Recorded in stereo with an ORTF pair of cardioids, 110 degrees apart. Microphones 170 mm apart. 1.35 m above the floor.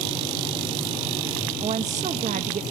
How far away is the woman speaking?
About 1.9 m.